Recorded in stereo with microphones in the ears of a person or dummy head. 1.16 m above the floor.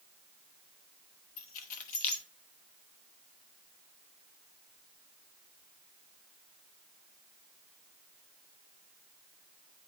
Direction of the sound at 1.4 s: 40° left (ahead or behind).